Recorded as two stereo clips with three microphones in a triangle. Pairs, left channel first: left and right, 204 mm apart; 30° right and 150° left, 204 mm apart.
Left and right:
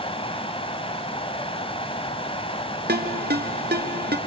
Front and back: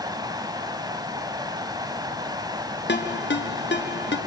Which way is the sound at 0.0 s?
105° left.